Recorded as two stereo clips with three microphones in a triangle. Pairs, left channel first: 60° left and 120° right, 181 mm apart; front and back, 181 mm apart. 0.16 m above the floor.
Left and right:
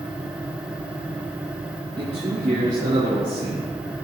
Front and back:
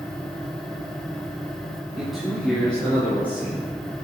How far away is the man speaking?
About 2 m.